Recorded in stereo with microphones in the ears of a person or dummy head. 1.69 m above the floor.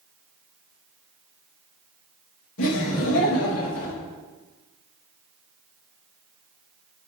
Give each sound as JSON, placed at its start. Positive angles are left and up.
{"t": 2.6, "sound": "laughter", "side_deg": 75, "distance_m": 2.5}